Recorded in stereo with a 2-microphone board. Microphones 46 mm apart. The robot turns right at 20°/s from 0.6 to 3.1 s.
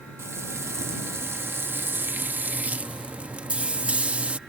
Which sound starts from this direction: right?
Frying, at 0.2 s.